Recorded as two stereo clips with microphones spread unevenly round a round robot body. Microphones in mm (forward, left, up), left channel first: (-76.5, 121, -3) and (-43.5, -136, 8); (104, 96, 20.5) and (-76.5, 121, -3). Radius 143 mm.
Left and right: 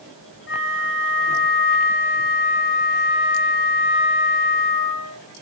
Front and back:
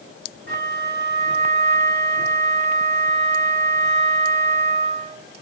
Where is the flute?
140° left, 4 m.